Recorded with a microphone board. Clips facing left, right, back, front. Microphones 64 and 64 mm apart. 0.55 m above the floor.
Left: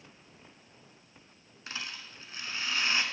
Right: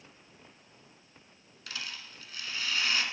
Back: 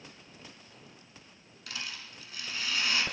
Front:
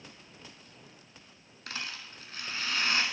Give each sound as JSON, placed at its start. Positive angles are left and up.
{"t": 1.7, "sound": "a rattle", "azimuth_deg": 35, "distance_m": 0.8}